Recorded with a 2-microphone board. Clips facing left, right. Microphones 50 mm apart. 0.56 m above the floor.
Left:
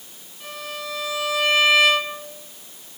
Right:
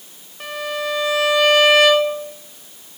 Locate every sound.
0.4 s a violin: 65° right (ahead or behind), 0.8 m